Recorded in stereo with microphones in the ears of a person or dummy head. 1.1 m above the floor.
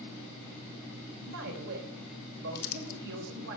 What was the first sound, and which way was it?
A man speaking, 70° right (ahead or behind).